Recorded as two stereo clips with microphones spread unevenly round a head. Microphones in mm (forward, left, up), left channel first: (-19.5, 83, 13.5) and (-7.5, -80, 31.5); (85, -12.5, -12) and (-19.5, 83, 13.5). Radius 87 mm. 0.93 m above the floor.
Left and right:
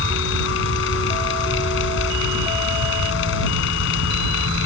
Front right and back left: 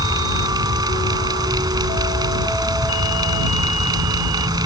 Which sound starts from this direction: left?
A fan, at 0.0 s.